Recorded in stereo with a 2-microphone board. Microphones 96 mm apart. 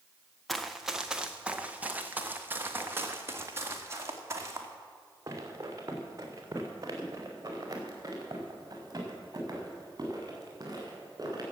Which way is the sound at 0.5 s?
Centre (ahead or behind).